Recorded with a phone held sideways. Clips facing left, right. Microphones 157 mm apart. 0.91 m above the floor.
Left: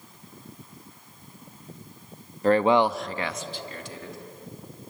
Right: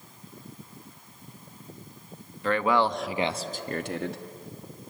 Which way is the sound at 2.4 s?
40° left (ahead or behind).